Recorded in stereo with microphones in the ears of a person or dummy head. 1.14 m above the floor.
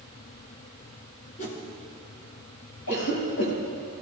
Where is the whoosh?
50° left (ahead or behind), 3 m.